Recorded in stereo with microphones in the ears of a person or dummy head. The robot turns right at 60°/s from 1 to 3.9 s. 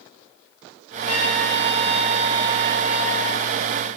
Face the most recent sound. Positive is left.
turn(degrees=-65)